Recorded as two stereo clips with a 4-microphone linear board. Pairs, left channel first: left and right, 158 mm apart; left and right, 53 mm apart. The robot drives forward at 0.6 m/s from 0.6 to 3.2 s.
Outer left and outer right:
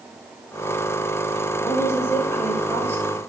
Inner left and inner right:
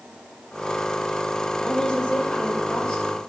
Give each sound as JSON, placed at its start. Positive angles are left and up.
{"t": 1.6, "sound": "a woman speaking", "side_deg": 15, "distance_m": 1.5}